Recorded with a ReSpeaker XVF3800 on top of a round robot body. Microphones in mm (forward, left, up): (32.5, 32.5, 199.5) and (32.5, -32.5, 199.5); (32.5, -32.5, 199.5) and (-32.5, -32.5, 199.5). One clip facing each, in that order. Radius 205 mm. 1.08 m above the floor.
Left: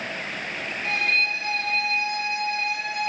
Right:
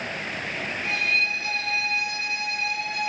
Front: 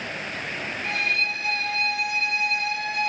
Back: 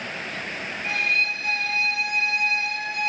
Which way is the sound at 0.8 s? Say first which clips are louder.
Left 2 dB, back 2 dB; 35° left.